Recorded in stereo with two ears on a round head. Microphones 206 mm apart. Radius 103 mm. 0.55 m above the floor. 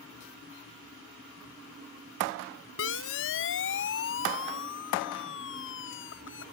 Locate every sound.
2.8 s a siren: 60° left (ahead or behind); by 6.4 s 55° left (ahead or behind)